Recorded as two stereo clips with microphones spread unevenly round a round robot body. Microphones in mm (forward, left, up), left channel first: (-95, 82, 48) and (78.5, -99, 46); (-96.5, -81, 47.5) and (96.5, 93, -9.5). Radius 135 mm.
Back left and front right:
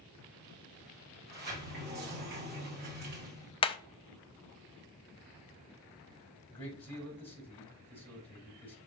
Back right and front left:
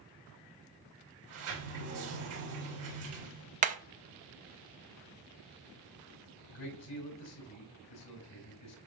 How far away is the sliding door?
About 3 m.